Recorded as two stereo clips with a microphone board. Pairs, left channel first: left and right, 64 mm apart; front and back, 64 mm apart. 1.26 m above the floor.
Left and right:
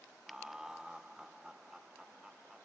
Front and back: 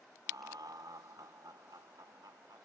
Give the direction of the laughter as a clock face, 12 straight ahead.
6 o'clock.